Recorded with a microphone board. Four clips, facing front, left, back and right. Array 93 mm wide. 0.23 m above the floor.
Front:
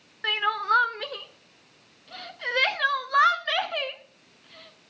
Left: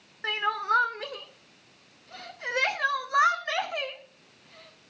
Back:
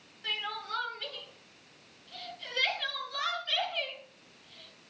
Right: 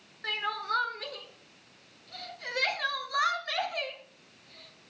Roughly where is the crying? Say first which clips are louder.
Left 5 dB, front 13 dB; ahead left.